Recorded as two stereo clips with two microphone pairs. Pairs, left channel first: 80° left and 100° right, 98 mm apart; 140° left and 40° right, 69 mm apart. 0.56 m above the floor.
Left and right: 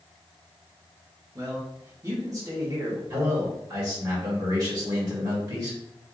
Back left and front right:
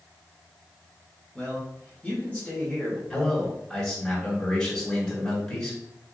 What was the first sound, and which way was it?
A man speaking, 150° right.